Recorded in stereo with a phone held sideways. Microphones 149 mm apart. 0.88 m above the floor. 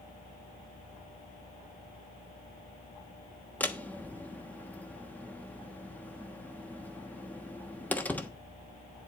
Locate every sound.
3.6 s a door slam: 10° left (ahead or behind), 1.2 m